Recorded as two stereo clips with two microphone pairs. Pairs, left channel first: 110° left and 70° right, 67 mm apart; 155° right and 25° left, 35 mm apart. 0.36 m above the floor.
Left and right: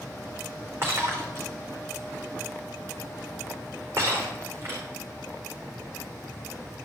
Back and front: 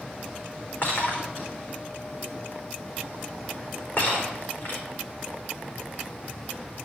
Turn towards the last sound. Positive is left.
turn(degrees=-120)